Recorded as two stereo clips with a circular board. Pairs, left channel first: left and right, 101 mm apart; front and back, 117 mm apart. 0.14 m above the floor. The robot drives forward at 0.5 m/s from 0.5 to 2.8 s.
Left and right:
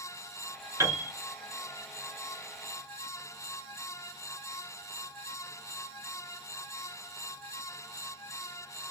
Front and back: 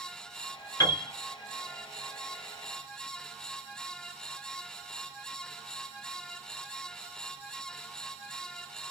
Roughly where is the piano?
Ahead right.